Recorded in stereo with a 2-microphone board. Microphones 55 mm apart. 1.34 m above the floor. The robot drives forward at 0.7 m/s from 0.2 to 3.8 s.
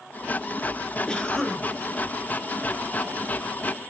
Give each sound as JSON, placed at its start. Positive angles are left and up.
{"t": 1.1, "sound": "a cough", "side_deg": 15, "distance_m": 0.7}